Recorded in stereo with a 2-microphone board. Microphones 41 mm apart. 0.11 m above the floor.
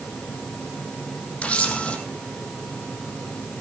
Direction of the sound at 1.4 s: 35° left (ahead or behind).